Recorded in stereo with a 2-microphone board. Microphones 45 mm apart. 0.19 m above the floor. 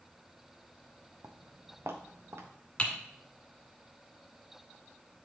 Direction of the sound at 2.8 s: 25° left (ahead or behind).